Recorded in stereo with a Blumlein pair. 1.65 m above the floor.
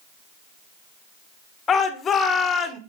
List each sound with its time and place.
1.7 s a shout: 20° left, 1.8 m